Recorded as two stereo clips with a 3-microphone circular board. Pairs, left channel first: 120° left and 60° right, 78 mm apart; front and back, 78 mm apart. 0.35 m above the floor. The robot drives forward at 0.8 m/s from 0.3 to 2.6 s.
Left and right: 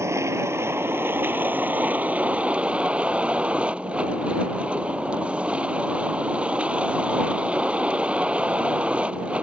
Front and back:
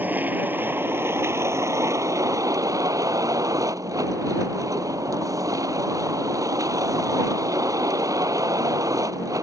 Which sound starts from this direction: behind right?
A vehicle, at 0.0 s.